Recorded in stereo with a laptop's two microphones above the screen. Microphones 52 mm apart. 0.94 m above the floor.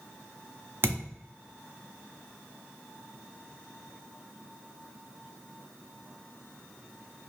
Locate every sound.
0.8 s a thud: 50° right (ahead or behind), 0.8 m